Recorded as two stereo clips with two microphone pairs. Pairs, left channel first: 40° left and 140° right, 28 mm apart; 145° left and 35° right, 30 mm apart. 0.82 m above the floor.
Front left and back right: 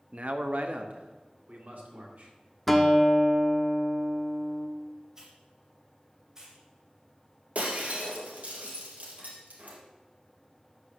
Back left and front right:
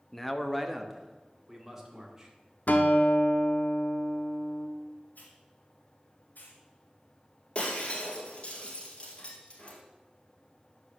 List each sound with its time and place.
0.1 s a man speaking: 140° right, 0.8 m; by 2.3 s 115° right, 2.5 m
2.7 s a guitar: 120° left, 1.0 m
5.2 s a hiss: 145° left, 2.5 m
7.5 s breaking glass: 170° right, 2.5 m